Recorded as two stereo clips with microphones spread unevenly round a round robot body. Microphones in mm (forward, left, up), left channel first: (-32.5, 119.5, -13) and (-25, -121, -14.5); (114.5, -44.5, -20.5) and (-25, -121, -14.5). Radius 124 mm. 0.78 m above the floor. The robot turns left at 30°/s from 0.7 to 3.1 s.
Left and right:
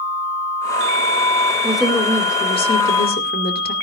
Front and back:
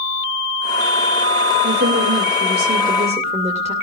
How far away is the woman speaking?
About 2.5 m.